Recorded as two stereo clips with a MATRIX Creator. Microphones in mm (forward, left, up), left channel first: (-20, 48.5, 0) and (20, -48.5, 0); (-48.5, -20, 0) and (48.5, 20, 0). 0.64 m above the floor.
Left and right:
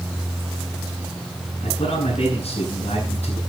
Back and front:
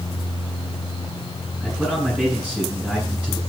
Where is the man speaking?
105° left, 7 m.